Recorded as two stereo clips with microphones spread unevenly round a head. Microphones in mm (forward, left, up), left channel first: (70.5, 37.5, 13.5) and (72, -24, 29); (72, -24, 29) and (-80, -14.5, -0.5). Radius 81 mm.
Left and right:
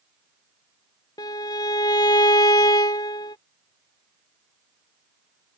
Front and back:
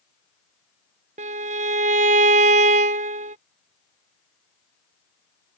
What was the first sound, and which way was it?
A violin, 125° left.